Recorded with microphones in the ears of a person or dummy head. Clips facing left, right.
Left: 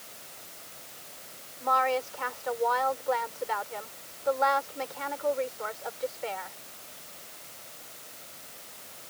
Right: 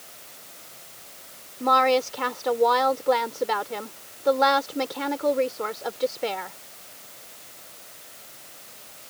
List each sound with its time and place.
1.6 s a woman speaking: 60° right (ahead or behind)